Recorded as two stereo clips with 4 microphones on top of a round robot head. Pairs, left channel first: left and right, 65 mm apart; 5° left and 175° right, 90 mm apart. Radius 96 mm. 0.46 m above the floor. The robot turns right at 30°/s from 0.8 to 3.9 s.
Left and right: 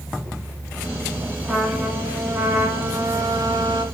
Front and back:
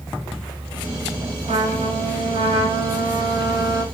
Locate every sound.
1.5 s a trumpet: 170° left, 2 m; by 3.9 s 115° right, 2 m